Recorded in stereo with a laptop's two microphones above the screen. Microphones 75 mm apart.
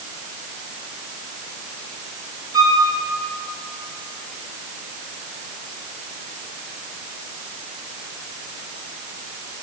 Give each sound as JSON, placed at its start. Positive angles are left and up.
{"t": 2.5, "sound": "a violin", "side_deg": -75, "distance_m": 3.0}